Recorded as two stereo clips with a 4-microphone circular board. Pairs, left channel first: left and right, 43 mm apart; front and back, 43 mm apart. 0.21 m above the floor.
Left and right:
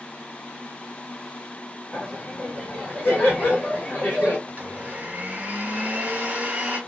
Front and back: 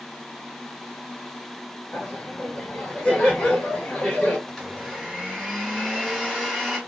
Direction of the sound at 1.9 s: 70° left.